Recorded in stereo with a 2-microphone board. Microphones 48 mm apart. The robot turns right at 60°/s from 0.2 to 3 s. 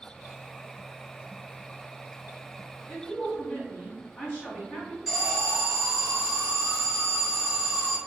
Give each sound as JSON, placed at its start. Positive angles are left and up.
{"t": 2.9, "sound": "a woman speaking", "side_deg": 35, "distance_m": 1.8}
{"t": 5.1, "sound": "an alarm", "side_deg": -10, "distance_m": 1.5}